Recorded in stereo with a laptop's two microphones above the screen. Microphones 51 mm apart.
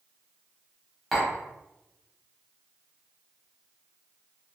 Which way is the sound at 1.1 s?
Centre (ahead or behind).